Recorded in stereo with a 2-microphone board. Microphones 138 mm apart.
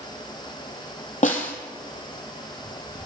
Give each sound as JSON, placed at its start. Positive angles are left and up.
{"t": 1.2, "sound": "a snare drum", "side_deg": 65, "distance_m": 2.5}